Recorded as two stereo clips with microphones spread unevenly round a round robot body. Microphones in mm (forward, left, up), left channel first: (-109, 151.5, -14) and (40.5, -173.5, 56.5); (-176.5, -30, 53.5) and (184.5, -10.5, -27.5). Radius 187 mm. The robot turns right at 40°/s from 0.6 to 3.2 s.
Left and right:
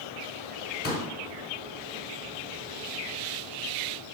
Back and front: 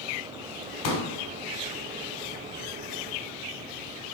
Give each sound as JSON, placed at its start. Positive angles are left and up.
{"t": 0.8, "sound": "a pop", "azimuth_deg": 180, "distance_m": 1.0}